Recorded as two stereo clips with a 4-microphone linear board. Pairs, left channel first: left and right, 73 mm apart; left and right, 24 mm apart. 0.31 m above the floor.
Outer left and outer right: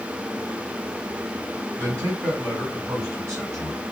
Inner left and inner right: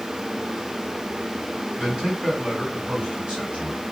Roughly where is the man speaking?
Right.